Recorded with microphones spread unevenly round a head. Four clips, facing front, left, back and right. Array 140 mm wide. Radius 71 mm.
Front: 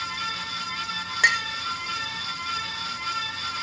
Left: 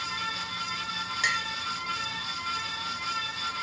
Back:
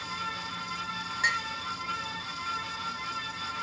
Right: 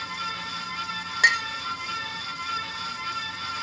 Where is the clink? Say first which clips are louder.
Right 8 dB, front 7 dB; 35° right, 0.8 m.